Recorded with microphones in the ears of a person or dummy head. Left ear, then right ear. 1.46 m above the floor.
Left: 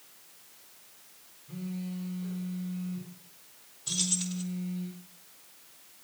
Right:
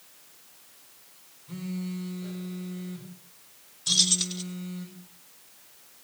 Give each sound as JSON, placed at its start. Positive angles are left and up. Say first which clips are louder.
{"t": 1.5, "sound": "a phone buzzing", "louder": "right 3 dB", "side_deg": -70, "distance_m": 6.5}
{"t": 3.9, "sound": "keys jangling", "louder": "right 9 dB", "side_deg": -35, "distance_m": 2.0}